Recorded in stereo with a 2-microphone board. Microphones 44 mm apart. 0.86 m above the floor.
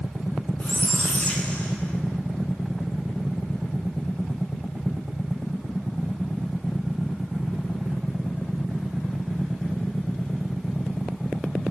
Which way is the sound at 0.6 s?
30° left (ahead or behind).